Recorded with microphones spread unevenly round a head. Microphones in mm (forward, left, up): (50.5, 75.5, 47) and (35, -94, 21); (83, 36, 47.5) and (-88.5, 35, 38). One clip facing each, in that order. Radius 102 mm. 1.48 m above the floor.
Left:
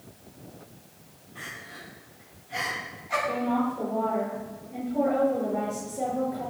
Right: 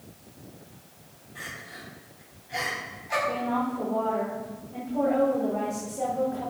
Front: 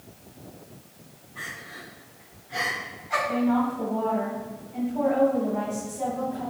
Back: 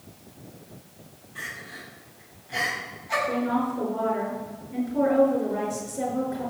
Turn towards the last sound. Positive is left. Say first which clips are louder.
# left 3 dB, front 3 dB
turn(degrees=170)